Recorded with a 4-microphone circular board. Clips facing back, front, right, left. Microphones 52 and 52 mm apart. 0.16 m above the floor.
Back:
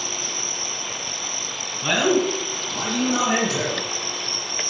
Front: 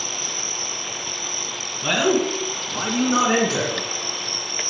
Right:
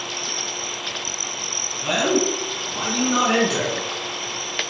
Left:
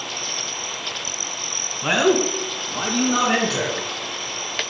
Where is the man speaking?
95° left, 1.9 m; by 3.8 s 15° right, 2.5 m.